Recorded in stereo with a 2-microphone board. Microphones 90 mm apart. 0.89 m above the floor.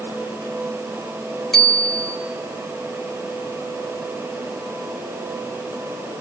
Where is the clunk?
No clunk in this recording.